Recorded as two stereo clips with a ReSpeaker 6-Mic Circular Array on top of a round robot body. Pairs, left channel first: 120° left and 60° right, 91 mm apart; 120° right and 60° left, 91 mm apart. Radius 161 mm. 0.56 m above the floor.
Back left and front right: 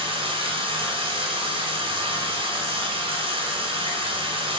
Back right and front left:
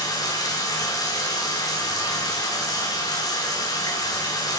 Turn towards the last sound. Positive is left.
turn(degrees=-70)